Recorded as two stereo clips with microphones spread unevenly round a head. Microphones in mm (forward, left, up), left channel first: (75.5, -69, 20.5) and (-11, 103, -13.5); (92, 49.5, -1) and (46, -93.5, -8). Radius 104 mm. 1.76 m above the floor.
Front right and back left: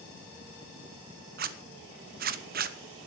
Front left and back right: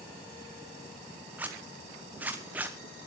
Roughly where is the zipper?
Behind.